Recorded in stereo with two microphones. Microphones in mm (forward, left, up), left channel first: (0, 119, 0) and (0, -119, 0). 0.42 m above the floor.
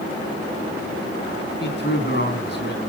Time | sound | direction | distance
1.6 | a man speaking | 50° left (ahead or behind) | 3.5 m